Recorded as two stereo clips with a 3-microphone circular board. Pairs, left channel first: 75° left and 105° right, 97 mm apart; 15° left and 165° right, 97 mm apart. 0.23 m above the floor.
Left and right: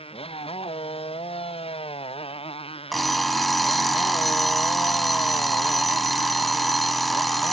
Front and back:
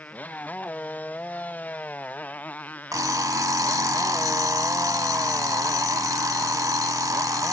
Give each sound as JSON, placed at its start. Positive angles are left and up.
{"t": 0.0, "sound": "a motorcycle", "azimuth_deg": 90}
{"t": 2.9, "sound": "an alarm clock", "azimuth_deg": 160}